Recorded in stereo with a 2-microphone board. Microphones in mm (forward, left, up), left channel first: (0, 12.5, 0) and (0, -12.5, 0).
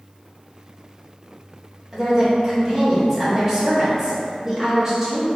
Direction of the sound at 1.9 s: 15° right (ahead or behind).